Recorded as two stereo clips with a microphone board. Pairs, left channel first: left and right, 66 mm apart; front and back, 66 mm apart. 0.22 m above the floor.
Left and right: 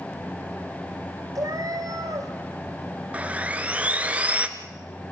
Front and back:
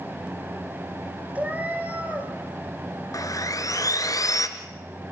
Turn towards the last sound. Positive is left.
turn(degrees=-20)